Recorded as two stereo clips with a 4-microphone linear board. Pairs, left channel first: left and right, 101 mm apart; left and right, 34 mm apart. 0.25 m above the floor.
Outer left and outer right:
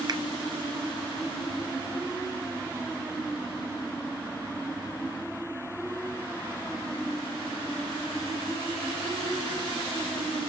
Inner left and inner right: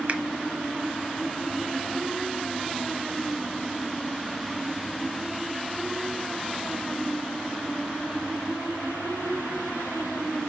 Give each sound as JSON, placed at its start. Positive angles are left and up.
{"t": 0.1, "sound": "a finger snap", "side_deg": -45, "distance_m": 1.4}